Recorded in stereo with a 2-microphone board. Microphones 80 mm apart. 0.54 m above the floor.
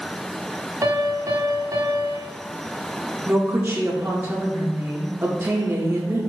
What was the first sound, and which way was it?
A piano, 35° right (ahead or behind).